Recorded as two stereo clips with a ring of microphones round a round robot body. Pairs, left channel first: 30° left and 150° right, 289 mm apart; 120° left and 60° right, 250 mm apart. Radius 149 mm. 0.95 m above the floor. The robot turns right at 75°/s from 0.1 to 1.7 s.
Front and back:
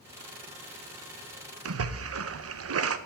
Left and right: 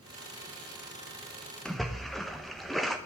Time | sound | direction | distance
1.6 | a splash | 155° right | 0.9 m